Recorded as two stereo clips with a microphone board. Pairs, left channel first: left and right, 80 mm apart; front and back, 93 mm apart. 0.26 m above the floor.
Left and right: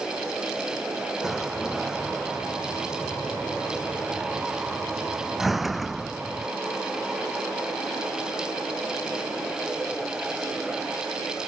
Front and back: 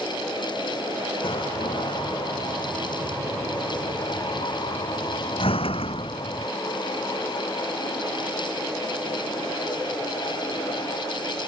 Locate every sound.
1.2 s a door slam: straight ahead